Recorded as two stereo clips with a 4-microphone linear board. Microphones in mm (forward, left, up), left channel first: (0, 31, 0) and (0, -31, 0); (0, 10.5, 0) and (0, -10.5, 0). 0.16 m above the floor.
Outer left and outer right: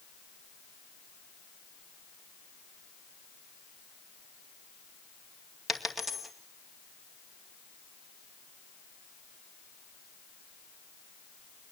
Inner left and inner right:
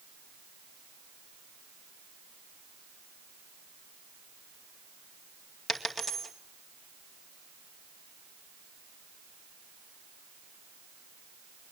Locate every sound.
5.7 s a dropped coin: centre (ahead or behind), 2 m